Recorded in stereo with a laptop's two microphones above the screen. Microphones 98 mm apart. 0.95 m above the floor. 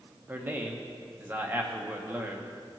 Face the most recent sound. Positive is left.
turn(degrees=-20)  # may be behind; listen again after turning